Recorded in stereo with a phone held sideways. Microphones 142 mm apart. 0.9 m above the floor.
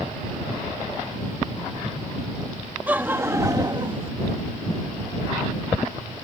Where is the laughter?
10° right (ahead or behind); by 4.1 s 40° right (ahead or behind).